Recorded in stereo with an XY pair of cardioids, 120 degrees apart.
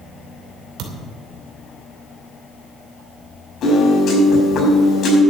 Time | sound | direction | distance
0.8 | a thud | 65° right | 2.5 m
3.6 | a piano | 50° left | 6 m